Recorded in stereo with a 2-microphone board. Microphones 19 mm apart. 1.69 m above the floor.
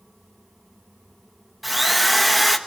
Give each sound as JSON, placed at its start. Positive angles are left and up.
{"t": 1.6, "sound": "a drill", "side_deg": 0, "distance_m": 1.3}